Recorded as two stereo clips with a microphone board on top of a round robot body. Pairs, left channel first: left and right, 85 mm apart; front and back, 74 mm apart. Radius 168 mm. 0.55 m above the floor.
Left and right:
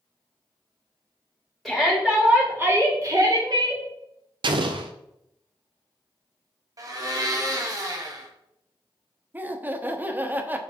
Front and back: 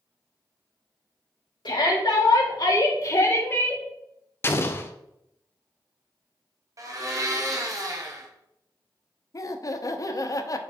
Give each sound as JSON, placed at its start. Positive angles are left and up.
{"t": 1.6, "sound": "a shout", "azimuth_deg": 0, "distance_m": 2.5}
{"t": 4.4, "sound": "an explosion", "azimuth_deg": -60, "distance_m": 0.5}
{"t": 6.8, "sound": "a blender", "azimuth_deg": -140, "distance_m": 1.5}
{"t": 9.3, "sound": "laughter", "azimuth_deg": -25, "distance_m": 1.1}